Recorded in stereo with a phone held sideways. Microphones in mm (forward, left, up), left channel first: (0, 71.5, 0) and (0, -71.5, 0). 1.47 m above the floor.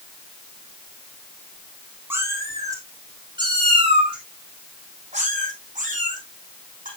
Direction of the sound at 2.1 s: 15° right (ahead or behind).